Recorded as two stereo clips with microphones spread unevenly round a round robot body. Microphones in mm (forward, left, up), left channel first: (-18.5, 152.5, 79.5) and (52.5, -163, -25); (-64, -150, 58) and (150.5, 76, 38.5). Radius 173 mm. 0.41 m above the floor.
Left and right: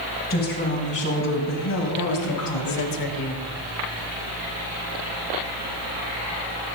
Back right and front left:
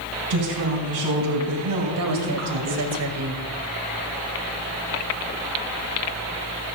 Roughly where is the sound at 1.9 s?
Left.